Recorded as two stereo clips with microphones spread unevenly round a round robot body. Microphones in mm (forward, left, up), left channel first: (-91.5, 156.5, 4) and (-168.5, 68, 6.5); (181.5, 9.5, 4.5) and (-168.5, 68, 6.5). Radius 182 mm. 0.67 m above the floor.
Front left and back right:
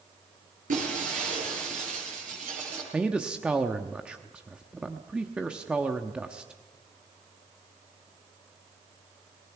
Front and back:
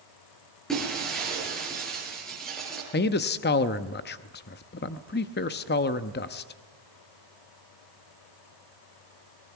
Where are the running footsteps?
I don't hear running footsteps.